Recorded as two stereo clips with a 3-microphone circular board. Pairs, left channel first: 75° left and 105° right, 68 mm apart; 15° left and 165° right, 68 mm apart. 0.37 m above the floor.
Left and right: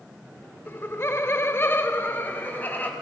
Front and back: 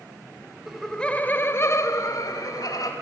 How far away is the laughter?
About 1.1 m.